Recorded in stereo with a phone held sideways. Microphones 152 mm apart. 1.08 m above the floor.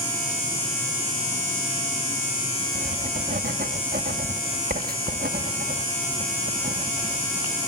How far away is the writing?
About 1.3 m.